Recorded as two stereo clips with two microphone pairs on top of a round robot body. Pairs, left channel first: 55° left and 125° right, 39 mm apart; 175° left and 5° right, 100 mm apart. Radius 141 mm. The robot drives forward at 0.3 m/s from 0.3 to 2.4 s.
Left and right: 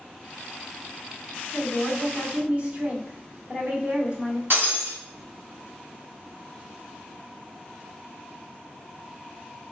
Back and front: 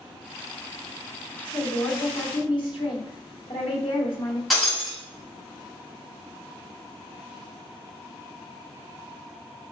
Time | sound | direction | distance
1.5 | a woman speaking | straight behind | 1.7 m
4.5 | breaking glass | 100° right | 2.5 m